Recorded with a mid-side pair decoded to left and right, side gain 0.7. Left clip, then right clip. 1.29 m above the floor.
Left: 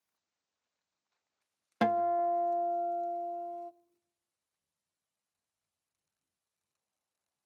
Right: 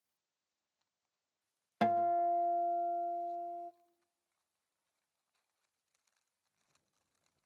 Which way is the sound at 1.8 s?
20° left.